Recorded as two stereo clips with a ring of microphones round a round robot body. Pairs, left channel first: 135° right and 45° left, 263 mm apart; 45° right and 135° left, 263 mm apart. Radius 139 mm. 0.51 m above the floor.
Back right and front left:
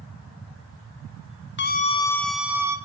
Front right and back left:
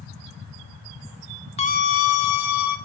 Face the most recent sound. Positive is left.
turn(degrees=-35)